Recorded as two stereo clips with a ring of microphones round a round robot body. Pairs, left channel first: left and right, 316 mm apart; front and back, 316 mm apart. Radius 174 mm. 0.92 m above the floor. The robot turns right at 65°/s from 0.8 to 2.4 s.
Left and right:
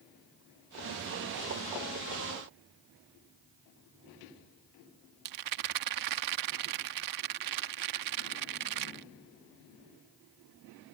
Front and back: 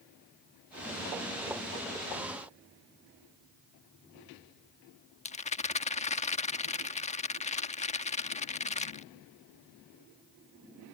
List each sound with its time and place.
5.2 s a rattle: 70° right